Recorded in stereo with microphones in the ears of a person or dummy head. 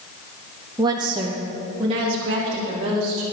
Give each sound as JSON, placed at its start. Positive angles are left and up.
{"t": 0.8, "sound": "a woman speaking", "side_deg": -20, "distance_m": 1.0}